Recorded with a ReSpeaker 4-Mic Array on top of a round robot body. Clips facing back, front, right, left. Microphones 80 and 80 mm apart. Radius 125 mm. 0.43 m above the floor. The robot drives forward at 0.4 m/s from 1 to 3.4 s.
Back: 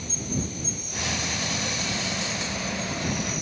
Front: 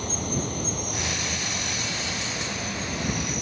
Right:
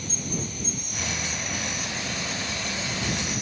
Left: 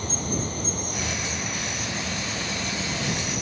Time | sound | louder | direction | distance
0.0 | an insect | front 2 dB, left 4 dB | 40° left | ?